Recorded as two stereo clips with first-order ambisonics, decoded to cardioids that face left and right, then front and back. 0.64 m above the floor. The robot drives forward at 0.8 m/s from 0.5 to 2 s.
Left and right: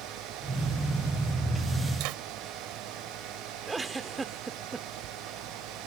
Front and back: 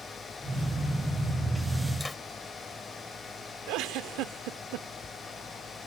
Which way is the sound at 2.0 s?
85° right.